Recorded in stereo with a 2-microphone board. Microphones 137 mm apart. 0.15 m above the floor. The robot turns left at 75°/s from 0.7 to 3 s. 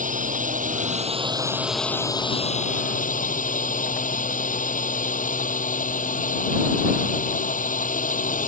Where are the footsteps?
No footsteps in this recording.